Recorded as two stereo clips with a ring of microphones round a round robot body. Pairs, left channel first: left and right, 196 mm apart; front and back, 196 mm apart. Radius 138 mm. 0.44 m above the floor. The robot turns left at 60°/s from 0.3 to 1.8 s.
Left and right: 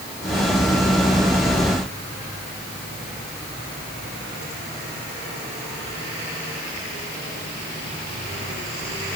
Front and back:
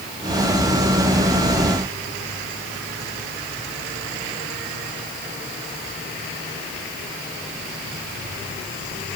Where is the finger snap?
I don't hear a finger snap.